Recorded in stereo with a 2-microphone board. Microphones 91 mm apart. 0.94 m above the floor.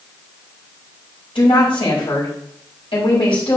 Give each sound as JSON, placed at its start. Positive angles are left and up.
{"t": 1.4, "sound": "a woman speaking", "side_deg": 75, "distance_m": 5.0}